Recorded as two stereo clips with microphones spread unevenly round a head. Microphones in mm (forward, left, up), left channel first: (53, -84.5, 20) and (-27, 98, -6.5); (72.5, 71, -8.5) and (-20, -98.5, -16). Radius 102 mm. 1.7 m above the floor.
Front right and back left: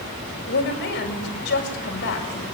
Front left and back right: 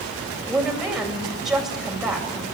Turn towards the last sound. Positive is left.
turn(degrees=-30)